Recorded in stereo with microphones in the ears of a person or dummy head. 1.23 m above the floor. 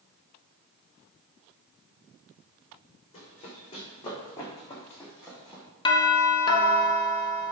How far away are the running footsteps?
About 4.5 m.